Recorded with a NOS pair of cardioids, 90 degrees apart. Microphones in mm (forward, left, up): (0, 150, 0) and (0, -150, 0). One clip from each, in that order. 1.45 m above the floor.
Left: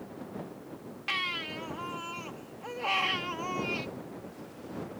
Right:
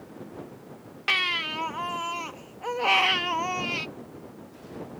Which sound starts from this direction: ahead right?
A baby crying, at 1.1 s.